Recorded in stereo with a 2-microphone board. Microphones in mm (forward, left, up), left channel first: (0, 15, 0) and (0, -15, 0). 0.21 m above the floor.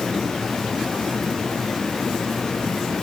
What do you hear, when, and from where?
Only background noise.